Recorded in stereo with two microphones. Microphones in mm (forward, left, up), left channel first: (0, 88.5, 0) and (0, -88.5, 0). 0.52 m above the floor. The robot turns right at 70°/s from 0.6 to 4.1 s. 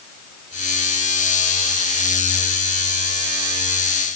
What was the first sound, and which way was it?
Only background noise.